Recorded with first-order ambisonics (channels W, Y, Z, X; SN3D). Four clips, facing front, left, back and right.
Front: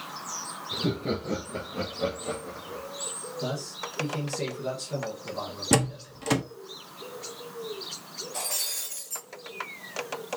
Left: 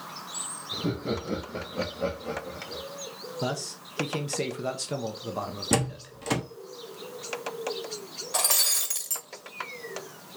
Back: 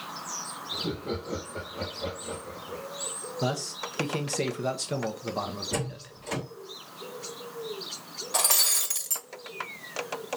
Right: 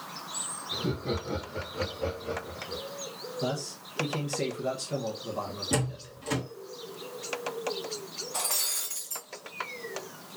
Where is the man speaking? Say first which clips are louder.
Left 1 dB, back 3 dB; 145° left, 0.9 m.